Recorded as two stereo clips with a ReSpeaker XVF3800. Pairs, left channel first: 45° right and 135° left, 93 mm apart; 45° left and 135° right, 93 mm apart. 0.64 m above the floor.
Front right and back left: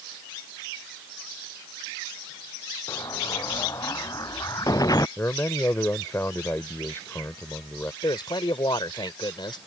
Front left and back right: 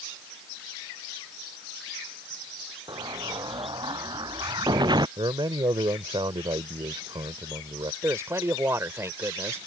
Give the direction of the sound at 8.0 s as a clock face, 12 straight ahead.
3 o'clock.